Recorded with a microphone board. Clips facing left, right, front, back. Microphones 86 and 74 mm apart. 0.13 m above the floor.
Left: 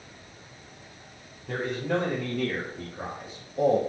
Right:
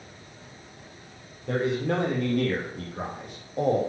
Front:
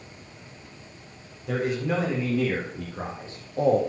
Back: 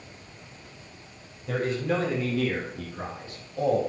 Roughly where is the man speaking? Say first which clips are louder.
Right 3 dB, front 1 dB; right.